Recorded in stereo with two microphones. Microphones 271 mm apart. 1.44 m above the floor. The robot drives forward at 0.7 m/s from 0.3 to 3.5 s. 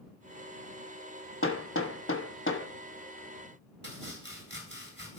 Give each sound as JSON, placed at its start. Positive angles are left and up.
{"t": 1.4, "sound": "hammering", "side_deg": 45, "distance_m": 1.2}
{"t": 3.8, "sound": "chopping", "side_deg": -40, "distance_m": 4.0}